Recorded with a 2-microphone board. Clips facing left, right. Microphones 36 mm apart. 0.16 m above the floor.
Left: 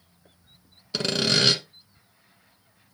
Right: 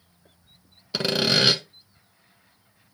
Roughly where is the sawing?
Centre.